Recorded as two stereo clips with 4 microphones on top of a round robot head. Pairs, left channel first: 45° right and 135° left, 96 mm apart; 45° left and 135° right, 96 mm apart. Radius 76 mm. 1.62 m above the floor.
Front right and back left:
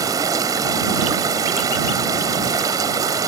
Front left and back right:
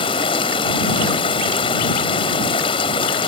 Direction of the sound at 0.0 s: 80° left.